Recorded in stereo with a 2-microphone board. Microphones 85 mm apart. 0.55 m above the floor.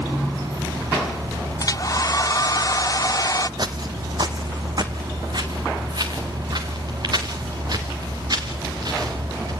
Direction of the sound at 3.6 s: 50° right (ahead or behind).